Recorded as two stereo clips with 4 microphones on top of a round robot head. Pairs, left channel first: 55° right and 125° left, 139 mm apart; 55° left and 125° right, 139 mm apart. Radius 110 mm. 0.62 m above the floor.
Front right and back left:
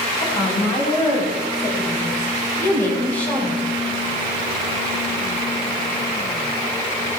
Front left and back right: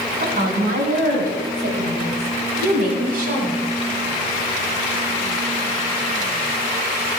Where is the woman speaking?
110° right, 6.5 m; by 3.6 s 140° right, 4.5 m.